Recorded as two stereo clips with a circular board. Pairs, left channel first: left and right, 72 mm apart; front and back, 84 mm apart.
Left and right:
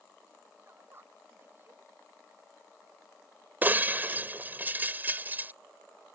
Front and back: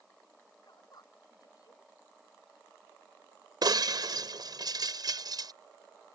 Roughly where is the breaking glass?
Behind right.